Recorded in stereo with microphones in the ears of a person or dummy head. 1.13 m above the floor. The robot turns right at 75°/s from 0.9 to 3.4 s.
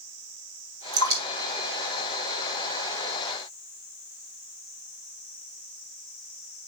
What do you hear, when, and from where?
0.9 s dripping: 75° right (ahead or behind), 2.5 m; by 2.7 s 35° left (ahead or behind), 2.5 m